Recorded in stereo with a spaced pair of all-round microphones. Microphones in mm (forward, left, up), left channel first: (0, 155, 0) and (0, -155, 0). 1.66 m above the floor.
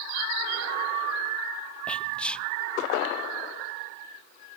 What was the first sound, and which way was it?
Whispering, 5° left (ahead or behind).